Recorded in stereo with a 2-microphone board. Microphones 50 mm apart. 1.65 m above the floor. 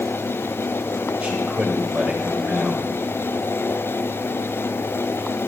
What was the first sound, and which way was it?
A man speaking, 30° right (ahead or behind).